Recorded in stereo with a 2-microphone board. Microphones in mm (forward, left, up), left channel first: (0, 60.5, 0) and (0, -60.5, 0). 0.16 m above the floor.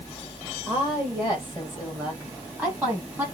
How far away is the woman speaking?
About 4.5 m.